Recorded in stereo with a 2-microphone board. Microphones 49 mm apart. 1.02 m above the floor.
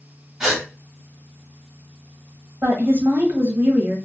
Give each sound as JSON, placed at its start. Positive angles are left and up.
{"t": 0.4, "sound": "a gasp", "side_deg": -5, "distance_m": 1.4}
{"t": 2.6, "sound": "a woman speaking", "side_deg": -50, "distance_m": 1.2}